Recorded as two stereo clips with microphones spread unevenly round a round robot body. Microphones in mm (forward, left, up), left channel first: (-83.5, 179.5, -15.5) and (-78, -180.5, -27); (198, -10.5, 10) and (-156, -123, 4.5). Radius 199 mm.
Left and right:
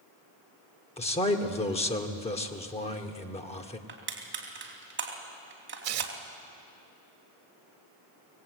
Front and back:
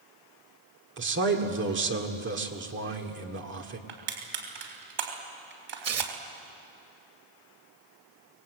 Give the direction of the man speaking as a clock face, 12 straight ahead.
7 o'clock.